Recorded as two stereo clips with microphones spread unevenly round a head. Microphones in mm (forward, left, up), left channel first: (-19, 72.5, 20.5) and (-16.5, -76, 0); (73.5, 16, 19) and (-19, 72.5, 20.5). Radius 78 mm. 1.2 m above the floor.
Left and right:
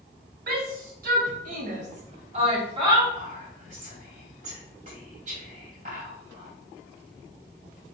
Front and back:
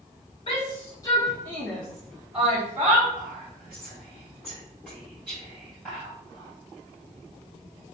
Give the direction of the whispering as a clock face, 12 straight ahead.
4 o'clock.